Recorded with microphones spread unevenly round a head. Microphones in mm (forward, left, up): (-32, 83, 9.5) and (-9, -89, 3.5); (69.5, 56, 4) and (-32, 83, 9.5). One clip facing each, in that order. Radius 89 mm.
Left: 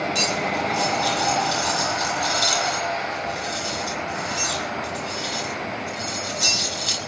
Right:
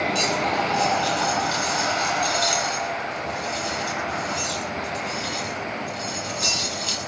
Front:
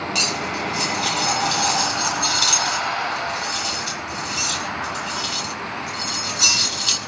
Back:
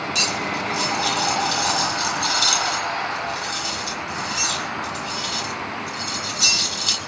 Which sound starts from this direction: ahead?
Cutlery clinking, at 0.1 s.